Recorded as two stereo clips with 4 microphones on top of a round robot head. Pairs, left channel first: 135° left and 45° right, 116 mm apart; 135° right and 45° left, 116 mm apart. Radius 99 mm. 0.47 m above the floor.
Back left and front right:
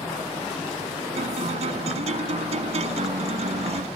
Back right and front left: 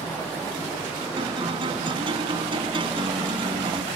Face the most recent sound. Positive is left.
turn(degrees=-5)